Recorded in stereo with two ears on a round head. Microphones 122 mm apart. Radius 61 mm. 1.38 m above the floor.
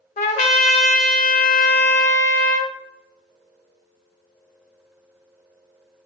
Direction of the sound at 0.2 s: 50° left (ahead or behind).